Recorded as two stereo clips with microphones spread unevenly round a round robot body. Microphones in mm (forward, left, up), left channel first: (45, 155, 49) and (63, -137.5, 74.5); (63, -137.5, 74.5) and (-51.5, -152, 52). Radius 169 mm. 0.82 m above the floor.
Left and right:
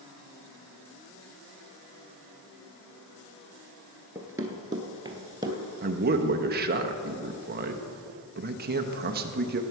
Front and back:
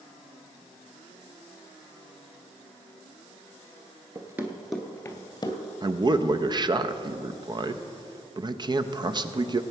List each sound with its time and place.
4.2 s running footsteps: 145° right, 0.8 m; by 5.6 s 15° right, 1.2 m
5.8 s a man speaking: 140° right, 0.7 m